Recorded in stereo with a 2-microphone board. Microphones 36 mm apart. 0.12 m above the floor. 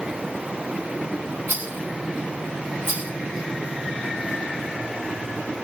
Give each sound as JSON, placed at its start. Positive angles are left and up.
{"t": 1.5, "sound": "a rattle", "side_deg": -65, "distance_m": 2.5}